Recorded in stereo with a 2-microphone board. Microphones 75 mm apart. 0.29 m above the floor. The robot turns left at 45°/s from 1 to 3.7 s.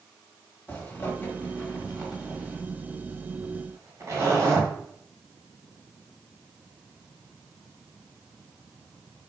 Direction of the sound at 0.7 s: 30° left (ahead or behind).